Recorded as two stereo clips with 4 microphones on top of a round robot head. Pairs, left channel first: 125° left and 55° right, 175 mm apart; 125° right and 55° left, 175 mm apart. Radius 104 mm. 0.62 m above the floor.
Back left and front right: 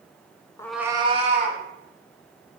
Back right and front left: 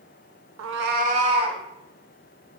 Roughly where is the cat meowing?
Ahead left.